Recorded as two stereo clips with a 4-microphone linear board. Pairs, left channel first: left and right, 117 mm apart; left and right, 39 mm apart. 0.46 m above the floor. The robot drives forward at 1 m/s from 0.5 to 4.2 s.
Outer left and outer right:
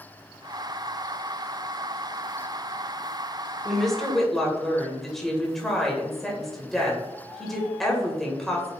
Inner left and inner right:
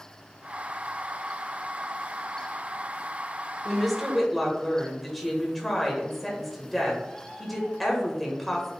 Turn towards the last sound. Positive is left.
turn(degrees=0)  # may be behind; listen again after turning